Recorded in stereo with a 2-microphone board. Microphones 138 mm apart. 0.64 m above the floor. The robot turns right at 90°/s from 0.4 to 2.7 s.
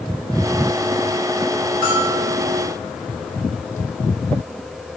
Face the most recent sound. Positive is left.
turn(degrees=-60)